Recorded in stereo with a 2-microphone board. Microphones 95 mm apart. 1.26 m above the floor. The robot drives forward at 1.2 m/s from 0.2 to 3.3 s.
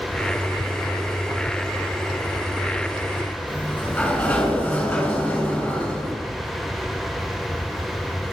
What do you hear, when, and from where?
3.5 s a sliding door: 10° left (ahead or behind), 7 m